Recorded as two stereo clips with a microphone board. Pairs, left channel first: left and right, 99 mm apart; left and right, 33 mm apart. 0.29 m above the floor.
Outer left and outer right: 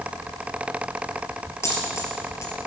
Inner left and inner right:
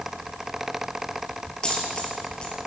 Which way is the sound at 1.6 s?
30° left (ahead or behind).